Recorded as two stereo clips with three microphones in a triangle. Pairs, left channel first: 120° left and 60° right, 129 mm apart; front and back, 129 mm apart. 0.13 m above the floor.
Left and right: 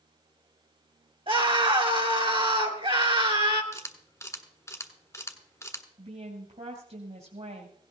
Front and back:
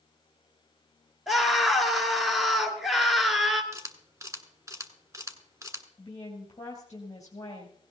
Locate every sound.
1.3 s a scream: 90° right, 2 m
3.7 s a camera shutter: 150° left, 1.2 m
6.0 s a woman speaking: 60° right, 2.5 m